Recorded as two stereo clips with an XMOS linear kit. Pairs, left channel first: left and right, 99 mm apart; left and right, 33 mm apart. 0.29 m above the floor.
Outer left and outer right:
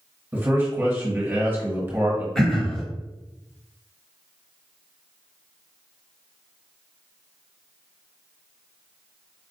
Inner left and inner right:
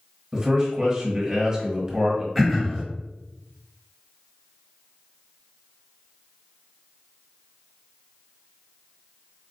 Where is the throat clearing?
5° left (ahead or behind), 1.0 m.